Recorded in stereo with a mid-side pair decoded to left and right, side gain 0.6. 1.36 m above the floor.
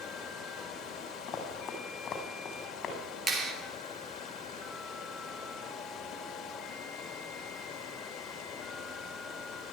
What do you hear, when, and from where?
0.0 s running water: 50° left, 2.5 m
1.3 s running footsteps: 45° left, 5 m
3.3 s a clap: 25° right, 3 m